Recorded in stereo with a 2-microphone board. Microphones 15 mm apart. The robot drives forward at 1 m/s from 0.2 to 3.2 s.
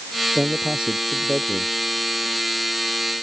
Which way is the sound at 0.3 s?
60° right (ahead or behind).